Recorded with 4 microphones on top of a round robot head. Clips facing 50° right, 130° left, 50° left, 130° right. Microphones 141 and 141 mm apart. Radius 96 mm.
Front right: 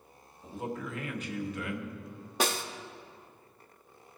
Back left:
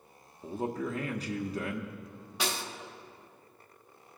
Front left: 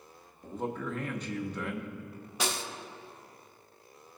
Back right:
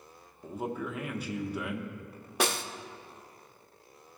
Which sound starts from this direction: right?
A snare drum, at 2.4 s.